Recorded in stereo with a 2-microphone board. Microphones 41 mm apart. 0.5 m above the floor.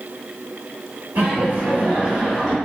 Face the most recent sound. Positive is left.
turn(degrees=-20)  # may be behind; listen again after turning